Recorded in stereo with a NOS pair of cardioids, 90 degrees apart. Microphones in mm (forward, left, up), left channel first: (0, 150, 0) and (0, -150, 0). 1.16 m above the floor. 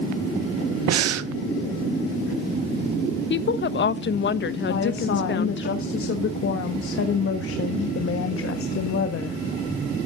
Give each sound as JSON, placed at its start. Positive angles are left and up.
{"t": 0.9, "sound": "breathing", "azimuth_deg": -60, "distance_m": 0.9}
{"t": 3.3, "sound": "a woman speaking", "azimuth_deg": 40, "distance_m": 1.0}
{"t": 4.7, "sound": "a woman speaking", "azimuth_deg": 45, "distance_m": 1.5}